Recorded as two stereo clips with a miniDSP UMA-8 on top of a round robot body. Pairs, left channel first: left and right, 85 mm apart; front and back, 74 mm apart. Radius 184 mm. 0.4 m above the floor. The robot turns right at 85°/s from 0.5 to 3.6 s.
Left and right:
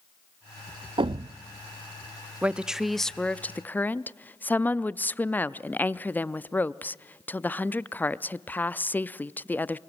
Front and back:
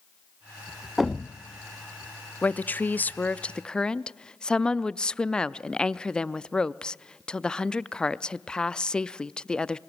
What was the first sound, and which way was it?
A thud, 95° right.